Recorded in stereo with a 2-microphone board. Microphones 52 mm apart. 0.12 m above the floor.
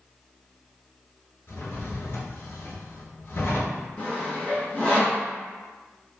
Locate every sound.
1.5 s a drawer: 50° left (ahead or behind), 0.8 m
4.0 s sawing: 25° left (ahead or behind), 1.6 m